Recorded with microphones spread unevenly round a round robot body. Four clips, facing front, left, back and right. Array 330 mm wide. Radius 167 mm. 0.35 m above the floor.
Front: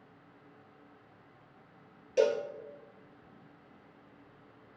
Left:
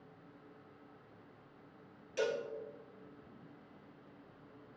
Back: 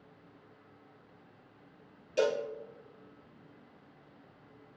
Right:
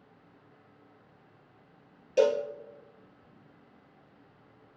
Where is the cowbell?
75° right, 2.5 m.